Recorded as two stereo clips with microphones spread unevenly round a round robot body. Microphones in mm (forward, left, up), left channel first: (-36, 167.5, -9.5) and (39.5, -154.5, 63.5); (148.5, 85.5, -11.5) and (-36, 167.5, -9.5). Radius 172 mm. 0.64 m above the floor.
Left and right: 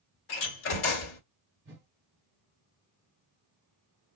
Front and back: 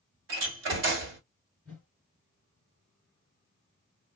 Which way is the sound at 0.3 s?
155° left.